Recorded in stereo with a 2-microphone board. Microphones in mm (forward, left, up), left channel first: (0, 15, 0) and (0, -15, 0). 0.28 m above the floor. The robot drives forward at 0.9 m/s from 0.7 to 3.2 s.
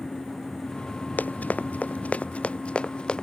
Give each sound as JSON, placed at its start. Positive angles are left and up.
{"t": 1.2, "sound": "running footsteps", "side_deg": 70}